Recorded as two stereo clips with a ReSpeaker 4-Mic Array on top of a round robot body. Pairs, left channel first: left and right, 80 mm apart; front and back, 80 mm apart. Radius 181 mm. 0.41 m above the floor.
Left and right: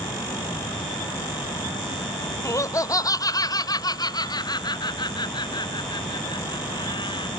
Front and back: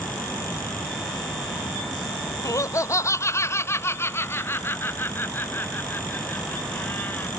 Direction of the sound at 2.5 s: 45° left.